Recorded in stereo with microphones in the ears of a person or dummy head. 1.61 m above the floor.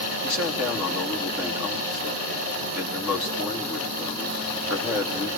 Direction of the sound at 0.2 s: 10° right (ahead or behind).